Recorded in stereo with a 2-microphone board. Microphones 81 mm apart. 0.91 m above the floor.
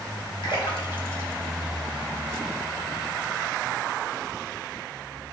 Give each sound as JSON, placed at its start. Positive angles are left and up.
{"t": 0.4, "sound": "a splash", "side_deg": 80, "distance_m": 1.8}